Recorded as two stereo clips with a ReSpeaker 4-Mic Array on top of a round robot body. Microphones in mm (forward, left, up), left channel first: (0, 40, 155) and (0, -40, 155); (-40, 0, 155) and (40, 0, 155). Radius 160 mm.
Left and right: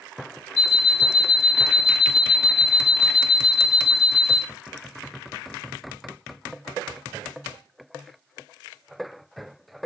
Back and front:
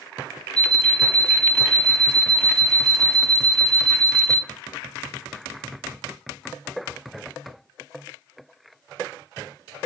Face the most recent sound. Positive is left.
turn(degrees=100)